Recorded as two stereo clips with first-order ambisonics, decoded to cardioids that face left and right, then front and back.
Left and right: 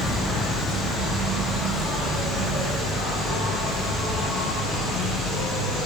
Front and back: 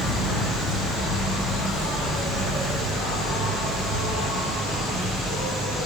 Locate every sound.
0.0 s an insect: straight ahead, 0.9 m